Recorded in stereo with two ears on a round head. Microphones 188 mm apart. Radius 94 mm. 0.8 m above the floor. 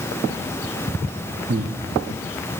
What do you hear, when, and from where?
1.5 s breathing: 40° right (ahead or behind), 1.0 m